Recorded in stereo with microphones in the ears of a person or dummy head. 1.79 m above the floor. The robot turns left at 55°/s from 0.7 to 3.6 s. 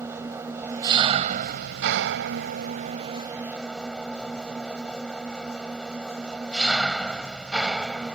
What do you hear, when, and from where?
0.0 s an engine running: 15° right; by 8.2 s 175° right